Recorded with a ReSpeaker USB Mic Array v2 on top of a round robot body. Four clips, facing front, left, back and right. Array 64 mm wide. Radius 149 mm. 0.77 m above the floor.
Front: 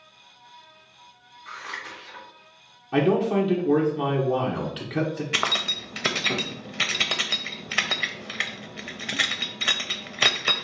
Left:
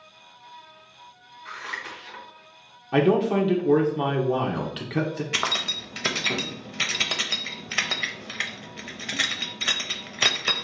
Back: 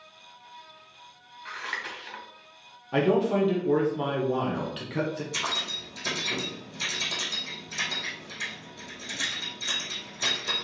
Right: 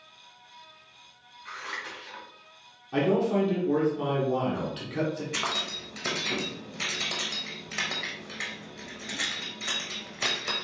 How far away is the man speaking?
About 1.0 m.